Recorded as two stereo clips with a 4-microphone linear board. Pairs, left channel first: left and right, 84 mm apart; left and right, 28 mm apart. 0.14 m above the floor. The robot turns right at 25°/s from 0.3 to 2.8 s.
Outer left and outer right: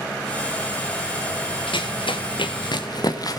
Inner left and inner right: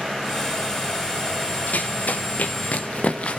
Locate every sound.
1.7 s running footsteps: 80° left, 3 m; by 3.4 s 45° left (ahead or behind), 2.5 m